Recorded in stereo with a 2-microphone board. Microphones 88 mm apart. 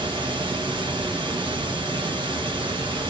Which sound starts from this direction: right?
Running water, at 0.0 s.